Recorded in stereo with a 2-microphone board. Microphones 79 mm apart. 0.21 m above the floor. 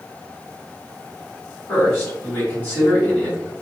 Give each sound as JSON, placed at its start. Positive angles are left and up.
{"t": 1.7, "sound": "a man speaking", "side_deg": 20, "distance_m": 1.8}